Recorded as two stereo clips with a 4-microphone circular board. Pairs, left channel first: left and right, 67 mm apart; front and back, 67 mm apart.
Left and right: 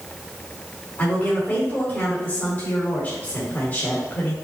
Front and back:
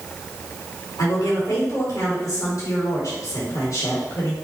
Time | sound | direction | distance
1.0 | a woman speaking | 35° left | 3 m